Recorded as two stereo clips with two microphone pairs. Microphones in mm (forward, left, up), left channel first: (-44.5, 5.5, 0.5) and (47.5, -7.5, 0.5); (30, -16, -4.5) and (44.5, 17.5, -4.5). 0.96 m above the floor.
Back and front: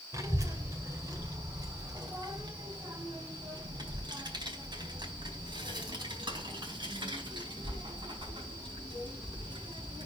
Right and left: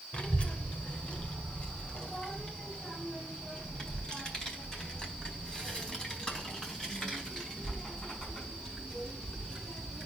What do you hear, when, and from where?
0.1 s a child speaking: 60° right, 3 m; by 10.1 s 35° right, 7.5 m